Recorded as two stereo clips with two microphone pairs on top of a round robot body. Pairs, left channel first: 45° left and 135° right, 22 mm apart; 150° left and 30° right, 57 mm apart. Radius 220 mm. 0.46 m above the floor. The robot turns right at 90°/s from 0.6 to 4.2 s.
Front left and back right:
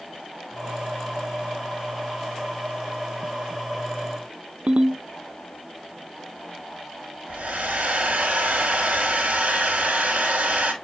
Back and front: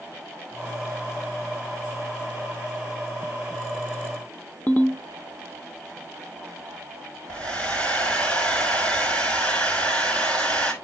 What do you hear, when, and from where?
4.7 s a ringtone: 150° right, 0.7 m
7.3 s a hair dryer: 140° right, 4.5 m